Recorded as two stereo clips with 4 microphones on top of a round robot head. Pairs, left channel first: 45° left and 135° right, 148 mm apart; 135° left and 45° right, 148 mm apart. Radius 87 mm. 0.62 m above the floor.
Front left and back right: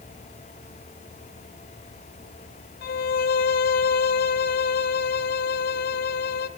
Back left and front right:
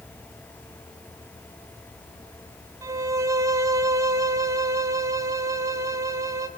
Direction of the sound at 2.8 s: 25° left.